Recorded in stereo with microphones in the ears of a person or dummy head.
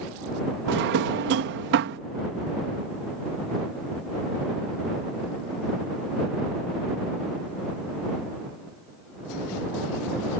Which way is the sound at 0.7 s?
60° right (ahead or behind).